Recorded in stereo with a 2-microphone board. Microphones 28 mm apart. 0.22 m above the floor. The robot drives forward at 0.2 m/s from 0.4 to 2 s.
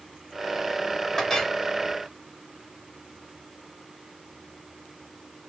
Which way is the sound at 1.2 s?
10° left (ahead or behind).